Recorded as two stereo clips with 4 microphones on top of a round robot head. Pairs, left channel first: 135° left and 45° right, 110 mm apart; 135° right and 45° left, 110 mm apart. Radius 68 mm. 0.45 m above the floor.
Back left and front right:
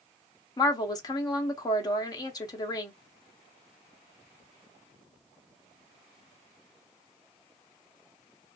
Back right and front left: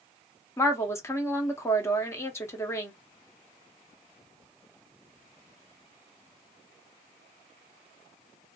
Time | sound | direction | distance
0.6 | a woman speaking | 170° left | 1.1 m